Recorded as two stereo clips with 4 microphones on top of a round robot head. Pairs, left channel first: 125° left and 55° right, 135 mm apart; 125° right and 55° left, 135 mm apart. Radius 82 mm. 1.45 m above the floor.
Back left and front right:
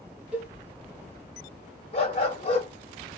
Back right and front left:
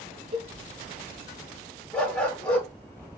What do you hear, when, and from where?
0.3 s a cowbell: 25° left, 0.6 m
1.9 s a dog barking: 155° left, 1.5 m